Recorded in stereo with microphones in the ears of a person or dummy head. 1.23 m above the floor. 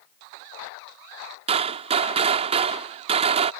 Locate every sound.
1.5 s a gunshot: 45° right (ahead or behind)